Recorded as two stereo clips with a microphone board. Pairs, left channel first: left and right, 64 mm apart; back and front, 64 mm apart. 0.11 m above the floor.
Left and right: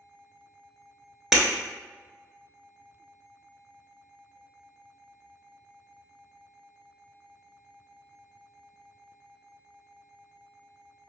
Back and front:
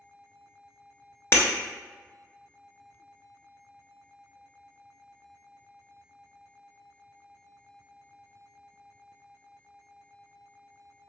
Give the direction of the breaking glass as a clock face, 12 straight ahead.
6 o'clock.